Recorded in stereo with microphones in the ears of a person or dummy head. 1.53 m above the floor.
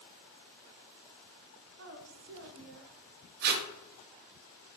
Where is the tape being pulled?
50° right (ahead or behind), 0.5 m.